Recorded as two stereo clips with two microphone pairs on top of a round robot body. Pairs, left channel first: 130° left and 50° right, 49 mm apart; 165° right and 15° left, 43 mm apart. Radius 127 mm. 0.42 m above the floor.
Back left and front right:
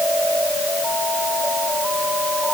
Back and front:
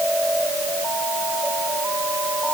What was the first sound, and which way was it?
Only background noise.